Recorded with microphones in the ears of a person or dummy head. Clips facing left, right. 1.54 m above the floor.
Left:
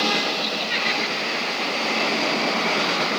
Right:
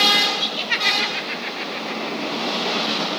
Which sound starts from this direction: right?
Laughter, at 0.4 s.